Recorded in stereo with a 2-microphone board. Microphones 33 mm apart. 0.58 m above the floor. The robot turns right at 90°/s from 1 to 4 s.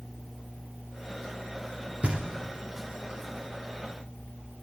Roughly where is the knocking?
Right.